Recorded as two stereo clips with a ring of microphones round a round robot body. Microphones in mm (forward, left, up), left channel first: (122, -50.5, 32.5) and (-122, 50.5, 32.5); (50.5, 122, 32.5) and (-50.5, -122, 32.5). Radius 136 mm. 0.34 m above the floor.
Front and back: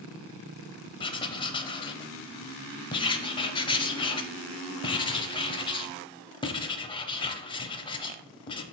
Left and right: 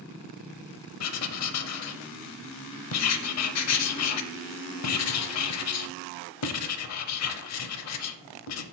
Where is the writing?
50° left, 0.6 m.